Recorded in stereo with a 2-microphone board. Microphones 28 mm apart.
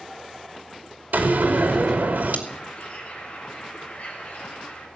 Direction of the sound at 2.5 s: 45° left (ahead or behind).